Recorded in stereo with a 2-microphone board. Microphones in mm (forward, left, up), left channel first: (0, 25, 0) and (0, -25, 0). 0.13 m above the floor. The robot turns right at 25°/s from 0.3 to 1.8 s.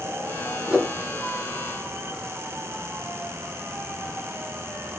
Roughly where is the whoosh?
Centre.